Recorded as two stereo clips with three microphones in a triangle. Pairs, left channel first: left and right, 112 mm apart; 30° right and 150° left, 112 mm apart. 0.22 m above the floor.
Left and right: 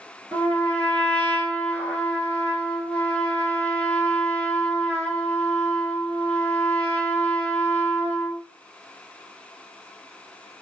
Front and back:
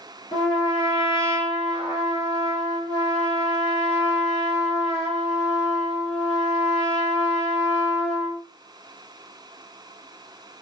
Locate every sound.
0.3 s a trumpet: 10° left, 1.4 m